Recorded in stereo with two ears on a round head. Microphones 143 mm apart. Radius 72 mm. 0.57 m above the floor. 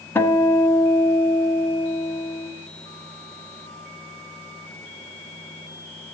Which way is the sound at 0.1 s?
15° left (ahead or behind).